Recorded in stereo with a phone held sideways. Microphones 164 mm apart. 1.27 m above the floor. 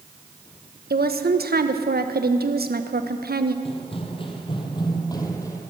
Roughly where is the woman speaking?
Right.